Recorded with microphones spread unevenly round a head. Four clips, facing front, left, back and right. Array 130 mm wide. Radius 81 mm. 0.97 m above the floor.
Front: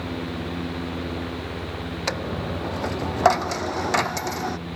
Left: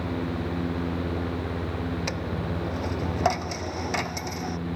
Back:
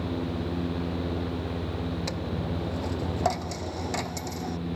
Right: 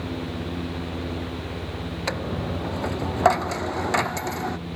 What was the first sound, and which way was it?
A dropped coin, 15° right.